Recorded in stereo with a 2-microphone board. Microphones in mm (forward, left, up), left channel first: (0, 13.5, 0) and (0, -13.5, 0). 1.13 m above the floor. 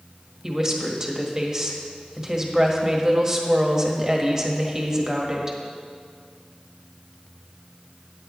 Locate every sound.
0.4 s a woman speaking: 25° right (ahead or behind), 1.6 m